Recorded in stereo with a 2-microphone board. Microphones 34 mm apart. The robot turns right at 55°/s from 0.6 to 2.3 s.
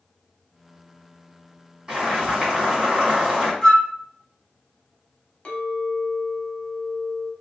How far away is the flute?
About 1.6 m.